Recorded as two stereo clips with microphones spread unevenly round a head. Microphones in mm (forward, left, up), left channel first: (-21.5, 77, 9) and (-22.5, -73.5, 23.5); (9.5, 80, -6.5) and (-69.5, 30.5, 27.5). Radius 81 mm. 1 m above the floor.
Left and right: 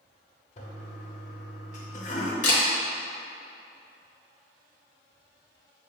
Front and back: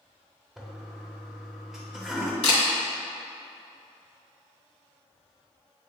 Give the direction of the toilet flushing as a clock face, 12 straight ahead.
8 o'clock.